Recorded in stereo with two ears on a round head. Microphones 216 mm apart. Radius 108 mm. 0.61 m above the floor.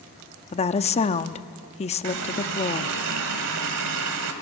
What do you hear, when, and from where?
0.5 s a woman speaking: 30° left (ahead or behind), 0.7 m
2.0 s a running tap: 85° right, 2 m